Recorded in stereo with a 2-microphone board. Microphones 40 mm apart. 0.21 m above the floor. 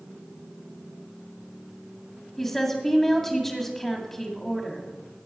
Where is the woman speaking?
5° left (ahead or behind), 1.6 m.